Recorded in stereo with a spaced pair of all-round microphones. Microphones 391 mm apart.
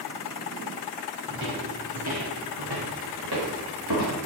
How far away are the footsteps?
About 3 m.